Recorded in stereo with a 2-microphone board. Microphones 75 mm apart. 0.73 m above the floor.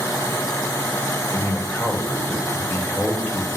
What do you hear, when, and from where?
1.3 s a man speaking: 30° left (ahead or behind), 3 m